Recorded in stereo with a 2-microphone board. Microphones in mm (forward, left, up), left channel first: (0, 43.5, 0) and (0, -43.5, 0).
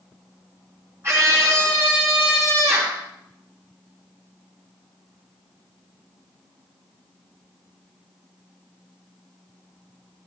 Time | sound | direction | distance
1.0 | a scream | 30° right (ahead or behind) | 4 m